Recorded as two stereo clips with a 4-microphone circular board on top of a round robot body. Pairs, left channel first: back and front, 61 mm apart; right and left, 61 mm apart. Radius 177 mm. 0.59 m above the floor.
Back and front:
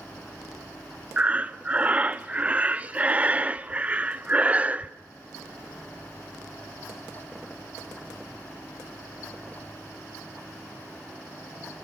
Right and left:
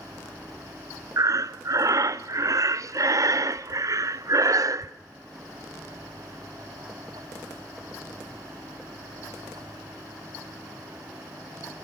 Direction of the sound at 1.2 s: 65° left.